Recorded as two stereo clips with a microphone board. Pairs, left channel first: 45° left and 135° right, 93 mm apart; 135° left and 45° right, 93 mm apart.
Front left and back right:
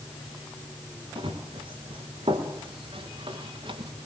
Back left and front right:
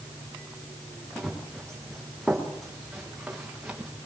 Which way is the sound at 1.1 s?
135° right.